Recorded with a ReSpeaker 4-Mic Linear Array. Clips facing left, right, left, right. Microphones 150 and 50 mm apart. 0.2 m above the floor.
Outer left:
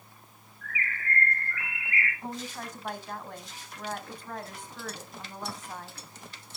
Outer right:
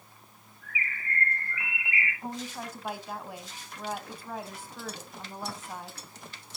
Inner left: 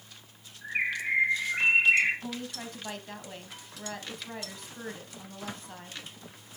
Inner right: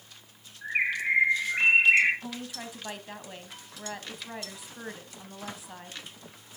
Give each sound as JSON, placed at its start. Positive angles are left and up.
{"t": 0.6, "sound": "a bird", "side_deg": -20, "distance_m": 4.5}
{"t": 2.2, "sound": "a woman speaking", "side_deg": -10, "distance_m": 1.0}